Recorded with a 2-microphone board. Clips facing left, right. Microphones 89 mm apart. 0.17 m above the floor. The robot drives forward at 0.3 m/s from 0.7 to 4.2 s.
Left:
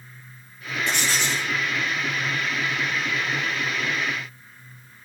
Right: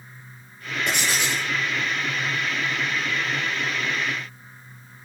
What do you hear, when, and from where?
0.9 s writing: 15° right (ahead or behind), 1.3 m; by 1.5 s 20° right (ahead or behind), 1.1 m